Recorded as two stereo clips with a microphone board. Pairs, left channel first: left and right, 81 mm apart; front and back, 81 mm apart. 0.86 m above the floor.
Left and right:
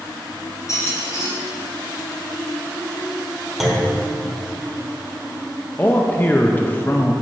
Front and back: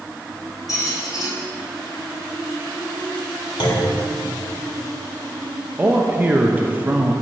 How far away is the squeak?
About 2.5 m.